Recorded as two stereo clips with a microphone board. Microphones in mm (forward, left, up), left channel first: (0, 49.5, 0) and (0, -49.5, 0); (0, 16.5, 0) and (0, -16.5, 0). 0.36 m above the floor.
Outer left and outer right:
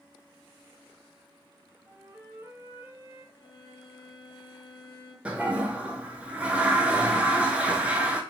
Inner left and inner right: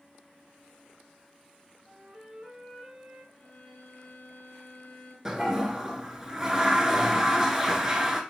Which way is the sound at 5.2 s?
15° right (ahead or behind).